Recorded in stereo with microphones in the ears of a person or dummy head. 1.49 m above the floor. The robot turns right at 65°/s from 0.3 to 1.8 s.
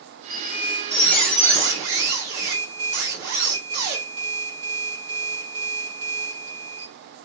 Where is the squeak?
Straight behind, 1.6 m; by 6.9 s 85° right, 1.6 m.